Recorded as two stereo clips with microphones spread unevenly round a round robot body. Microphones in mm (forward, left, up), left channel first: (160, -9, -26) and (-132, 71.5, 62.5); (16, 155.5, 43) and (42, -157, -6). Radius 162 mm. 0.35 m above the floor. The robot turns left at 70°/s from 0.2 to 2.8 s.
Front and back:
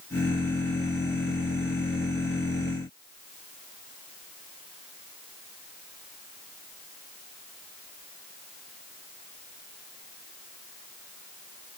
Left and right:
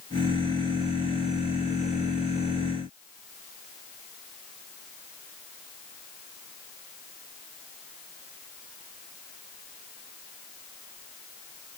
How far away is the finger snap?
I don't hear a finger snap.